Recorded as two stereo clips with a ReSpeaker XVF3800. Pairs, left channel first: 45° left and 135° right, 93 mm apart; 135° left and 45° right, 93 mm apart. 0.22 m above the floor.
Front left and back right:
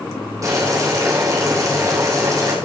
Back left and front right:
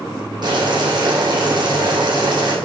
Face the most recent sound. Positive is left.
turn(degrees=-80)